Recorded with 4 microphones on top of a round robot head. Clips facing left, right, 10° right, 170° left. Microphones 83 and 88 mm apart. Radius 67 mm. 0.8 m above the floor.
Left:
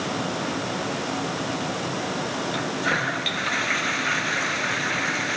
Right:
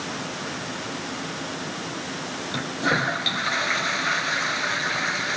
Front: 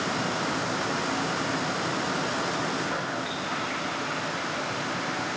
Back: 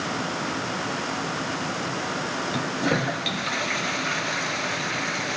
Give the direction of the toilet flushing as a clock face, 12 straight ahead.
5 o'clock.